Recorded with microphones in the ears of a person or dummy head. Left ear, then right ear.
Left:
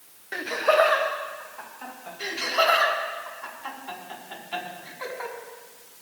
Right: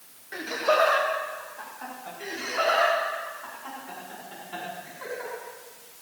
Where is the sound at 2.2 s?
35° left (ahead or behind), 5 m.